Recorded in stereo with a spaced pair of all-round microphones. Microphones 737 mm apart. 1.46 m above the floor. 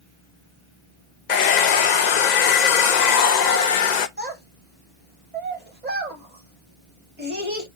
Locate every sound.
1.3 s a hair dryer: 70° left (ahead or behind), 0.7 m
4.2 s a child speaking: 15° right (ahead or behind), 2 m